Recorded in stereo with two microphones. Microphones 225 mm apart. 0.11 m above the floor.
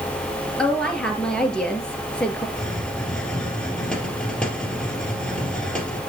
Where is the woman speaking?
5° left (ahead or behind), 2 m.